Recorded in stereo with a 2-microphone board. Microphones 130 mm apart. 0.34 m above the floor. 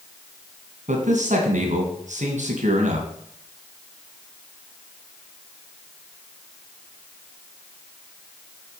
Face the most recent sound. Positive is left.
turn(degrees=-70)  # may be behind; listen again after turning